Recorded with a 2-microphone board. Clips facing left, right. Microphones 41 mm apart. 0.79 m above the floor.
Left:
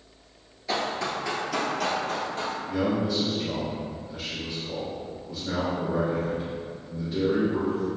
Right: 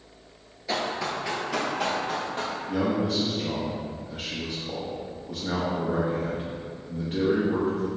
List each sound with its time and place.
0.7 s running footsteps: 5° right (ahead or behind), 0.8 m; by 2.6 s 25° right (ahead or behind), 1.4 m
2.7 s a man speaking: 50° right (ahead or behind), 0.6 m